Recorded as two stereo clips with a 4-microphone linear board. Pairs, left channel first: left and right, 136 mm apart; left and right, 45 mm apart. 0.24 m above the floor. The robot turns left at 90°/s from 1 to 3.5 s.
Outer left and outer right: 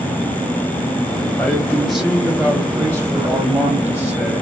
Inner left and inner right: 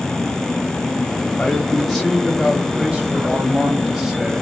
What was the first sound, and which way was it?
A man speaking, 15° left (ahead or behind).